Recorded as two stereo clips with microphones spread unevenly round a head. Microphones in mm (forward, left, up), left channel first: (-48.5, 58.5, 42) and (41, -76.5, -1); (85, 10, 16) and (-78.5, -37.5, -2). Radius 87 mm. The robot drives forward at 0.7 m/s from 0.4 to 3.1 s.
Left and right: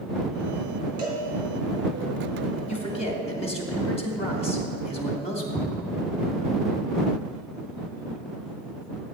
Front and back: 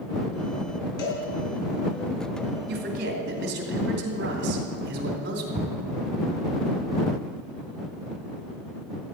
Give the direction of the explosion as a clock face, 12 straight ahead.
7 o'clock.